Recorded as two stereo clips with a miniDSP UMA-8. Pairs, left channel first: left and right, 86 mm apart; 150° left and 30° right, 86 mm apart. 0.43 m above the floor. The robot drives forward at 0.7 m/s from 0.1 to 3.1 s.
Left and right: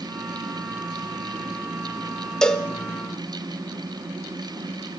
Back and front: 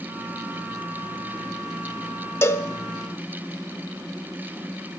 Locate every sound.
2.4 s a cowbell: 160° left, 0.8 m; by 2.7 s 170° left, 0.9 m